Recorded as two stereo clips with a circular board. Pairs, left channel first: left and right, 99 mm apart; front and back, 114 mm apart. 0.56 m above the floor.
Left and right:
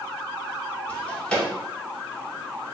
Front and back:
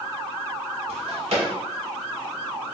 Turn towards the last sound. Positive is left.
turn(degrees=170)